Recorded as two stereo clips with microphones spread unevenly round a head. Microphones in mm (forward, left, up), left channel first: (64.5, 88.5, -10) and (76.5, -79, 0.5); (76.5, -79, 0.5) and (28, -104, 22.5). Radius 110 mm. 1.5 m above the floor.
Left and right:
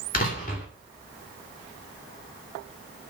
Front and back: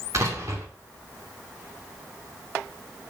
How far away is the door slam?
About 2.5 m.